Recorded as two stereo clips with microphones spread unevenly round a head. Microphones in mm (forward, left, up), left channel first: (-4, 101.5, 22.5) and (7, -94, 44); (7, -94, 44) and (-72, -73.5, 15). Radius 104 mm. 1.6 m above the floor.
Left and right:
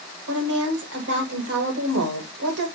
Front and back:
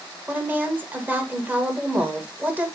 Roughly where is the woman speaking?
Behind right.